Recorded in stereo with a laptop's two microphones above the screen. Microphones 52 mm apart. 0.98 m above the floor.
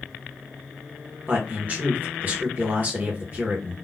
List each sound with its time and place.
1.3 s a man speaking: 35° right (ahead or behind), 1.0 m